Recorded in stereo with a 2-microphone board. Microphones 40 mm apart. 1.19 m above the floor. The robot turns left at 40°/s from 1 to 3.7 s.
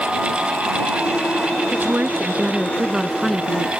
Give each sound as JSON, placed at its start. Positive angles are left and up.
{"t": 1.7, "sound": "a woman speaking", "azimuth_deg": -120}